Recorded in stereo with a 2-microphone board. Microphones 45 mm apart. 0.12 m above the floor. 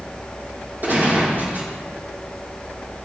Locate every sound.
0.8 s a gunshot: 50° right (ahead or behind), 5.5 m